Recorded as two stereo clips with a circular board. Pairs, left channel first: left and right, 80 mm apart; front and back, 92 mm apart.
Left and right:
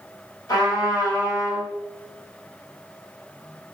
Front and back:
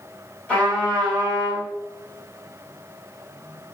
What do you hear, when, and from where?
0.5 s a trumpet: 70° left, 1.2 m